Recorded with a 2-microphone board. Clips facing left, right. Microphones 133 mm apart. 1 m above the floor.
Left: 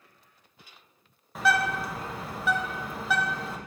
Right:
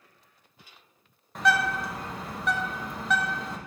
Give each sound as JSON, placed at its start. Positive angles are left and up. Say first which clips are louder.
{"t": 1.4, "sound": "a bird", "louder": "even", "side_deg": 0, "distance_m": 0.7}